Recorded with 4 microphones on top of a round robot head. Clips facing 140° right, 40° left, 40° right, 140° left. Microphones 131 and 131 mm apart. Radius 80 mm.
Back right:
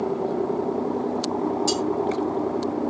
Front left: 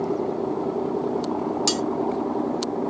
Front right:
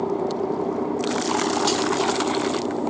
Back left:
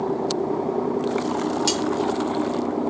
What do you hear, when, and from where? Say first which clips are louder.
1.7 s cutlery clinking: back right 1 dB, front right 2 dB; 55° left, 0.7 m